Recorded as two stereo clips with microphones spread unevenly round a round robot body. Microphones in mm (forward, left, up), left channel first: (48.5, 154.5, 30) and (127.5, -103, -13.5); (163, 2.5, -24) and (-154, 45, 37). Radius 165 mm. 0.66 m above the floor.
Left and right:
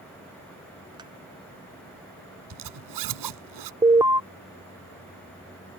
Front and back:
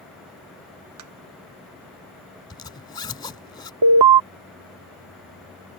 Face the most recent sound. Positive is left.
turn(degrees=-150)